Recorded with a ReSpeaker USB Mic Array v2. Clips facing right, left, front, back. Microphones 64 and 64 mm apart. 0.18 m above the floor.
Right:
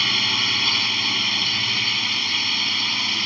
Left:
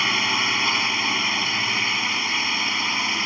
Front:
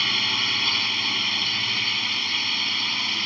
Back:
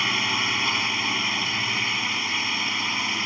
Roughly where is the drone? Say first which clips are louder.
Left 2 dB, back 2 dB; behind left.